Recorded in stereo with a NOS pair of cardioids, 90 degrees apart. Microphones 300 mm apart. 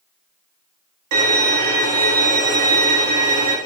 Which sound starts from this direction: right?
A violin, at 1.1 s.